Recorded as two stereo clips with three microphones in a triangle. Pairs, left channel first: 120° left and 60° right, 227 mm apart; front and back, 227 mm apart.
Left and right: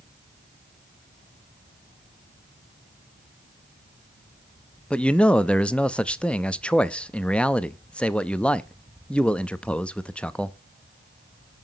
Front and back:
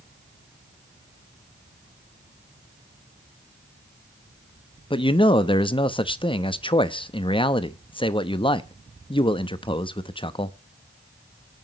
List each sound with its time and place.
4.9 s a man speaking: 40° left, 0.6 m